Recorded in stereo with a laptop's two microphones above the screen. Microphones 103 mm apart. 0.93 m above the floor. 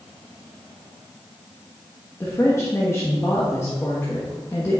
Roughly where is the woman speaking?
Left.